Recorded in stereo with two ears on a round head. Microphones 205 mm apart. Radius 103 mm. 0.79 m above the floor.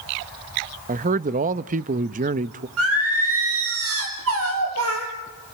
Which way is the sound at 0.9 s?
35° right (ahead or behind).